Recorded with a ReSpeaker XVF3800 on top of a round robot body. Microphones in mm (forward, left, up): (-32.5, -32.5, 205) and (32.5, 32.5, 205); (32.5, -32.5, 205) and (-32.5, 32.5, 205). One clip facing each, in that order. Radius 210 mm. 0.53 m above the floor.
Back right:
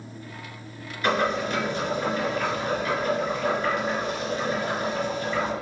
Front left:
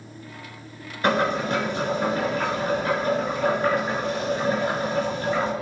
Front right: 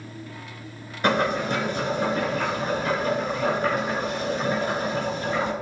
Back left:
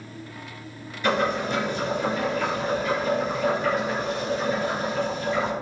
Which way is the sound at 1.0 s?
5° right.